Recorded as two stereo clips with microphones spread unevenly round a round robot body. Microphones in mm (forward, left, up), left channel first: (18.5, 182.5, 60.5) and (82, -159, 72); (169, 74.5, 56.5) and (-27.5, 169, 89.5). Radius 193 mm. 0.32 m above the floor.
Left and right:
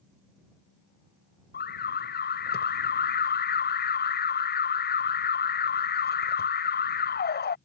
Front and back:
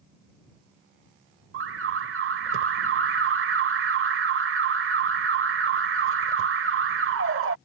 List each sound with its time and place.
1.5 s an alarm: 155° left